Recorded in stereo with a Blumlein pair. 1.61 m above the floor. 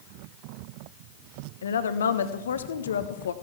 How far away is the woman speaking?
About 1.3 m.